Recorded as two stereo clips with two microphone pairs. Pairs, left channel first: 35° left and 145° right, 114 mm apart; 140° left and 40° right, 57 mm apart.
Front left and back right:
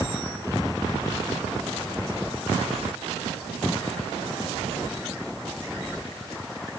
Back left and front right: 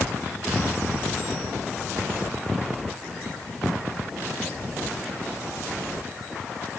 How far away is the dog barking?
I don't hear a dog barking.